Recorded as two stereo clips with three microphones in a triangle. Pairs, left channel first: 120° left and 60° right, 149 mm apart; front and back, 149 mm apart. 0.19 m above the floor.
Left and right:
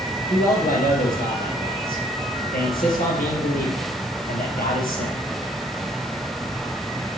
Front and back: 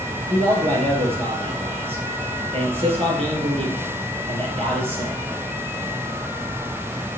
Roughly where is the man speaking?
Behind left.